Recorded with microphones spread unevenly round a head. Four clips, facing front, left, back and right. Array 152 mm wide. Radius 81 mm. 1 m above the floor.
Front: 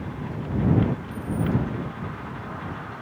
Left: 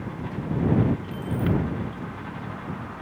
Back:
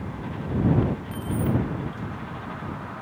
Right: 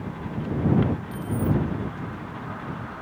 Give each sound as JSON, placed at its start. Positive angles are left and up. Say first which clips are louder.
{"t": 1.1, "sound": "keys jangling", "louder": "even, even", "azimuth_deg": -165}